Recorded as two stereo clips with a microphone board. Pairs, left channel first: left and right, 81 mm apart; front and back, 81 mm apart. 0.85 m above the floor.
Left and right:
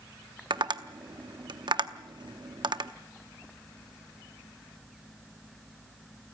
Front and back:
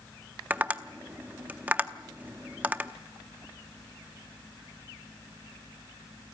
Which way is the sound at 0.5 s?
110° right.